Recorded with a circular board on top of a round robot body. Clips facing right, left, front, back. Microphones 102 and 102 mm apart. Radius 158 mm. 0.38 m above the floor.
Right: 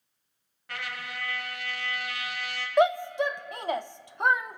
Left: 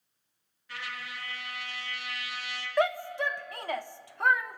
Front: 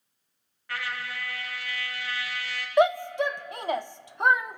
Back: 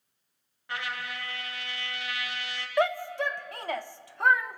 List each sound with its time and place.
0.7 s a trumpet: 115° right, 2.5 m
2.8 s a shout: 50° right, 0.8 m